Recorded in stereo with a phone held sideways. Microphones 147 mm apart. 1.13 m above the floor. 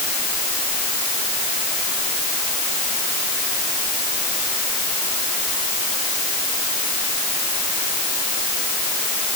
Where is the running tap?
I don't hear a running tap.